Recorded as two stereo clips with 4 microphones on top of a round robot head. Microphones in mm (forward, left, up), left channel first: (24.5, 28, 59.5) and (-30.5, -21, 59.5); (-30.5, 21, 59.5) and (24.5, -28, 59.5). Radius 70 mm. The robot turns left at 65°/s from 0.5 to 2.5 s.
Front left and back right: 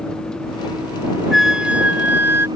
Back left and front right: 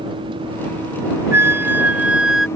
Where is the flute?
50° right; by 2.5 s 125° right.